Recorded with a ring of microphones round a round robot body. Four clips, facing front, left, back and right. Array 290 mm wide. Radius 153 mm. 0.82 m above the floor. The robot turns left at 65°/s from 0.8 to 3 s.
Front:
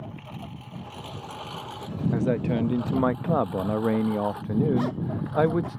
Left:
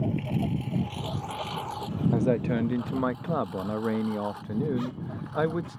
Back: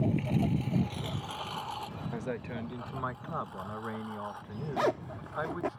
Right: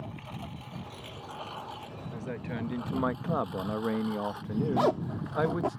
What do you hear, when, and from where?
0.0 s a lawn mower: 130° left; by 5.8 s 5° right
2.1 s a man speaking: 65° left; by 5.8 s 5° left
4.8 s a zipper: 115° right